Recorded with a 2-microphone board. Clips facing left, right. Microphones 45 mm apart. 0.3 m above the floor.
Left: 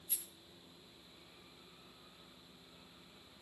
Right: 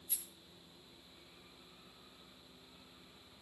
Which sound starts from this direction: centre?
A rattle, at 0.1 s.